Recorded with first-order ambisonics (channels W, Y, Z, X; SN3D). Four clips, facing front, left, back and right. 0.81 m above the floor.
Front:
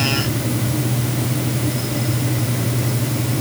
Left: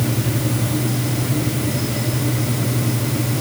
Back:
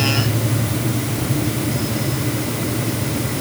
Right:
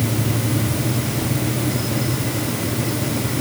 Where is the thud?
I don't hear a thud.